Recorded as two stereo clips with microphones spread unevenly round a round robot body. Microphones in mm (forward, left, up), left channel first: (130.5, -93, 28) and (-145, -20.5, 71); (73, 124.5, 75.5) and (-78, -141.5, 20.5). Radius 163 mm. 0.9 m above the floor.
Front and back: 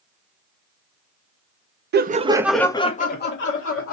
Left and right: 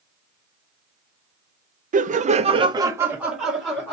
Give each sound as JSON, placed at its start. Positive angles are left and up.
{"t": 1.9, "sound": "laughter", "azimuth_deg": -150, "distance_m": 0.6}